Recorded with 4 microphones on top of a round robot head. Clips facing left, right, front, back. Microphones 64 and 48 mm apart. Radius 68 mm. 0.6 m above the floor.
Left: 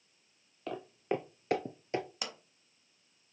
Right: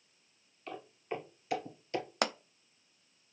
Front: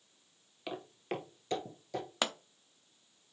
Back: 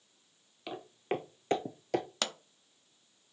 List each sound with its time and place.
0.7 s footsteps: 80° left, 0.8 m; by 2.1 s 160° left, 0.9 m
2.2 s a pop: 80° right, 0.5 m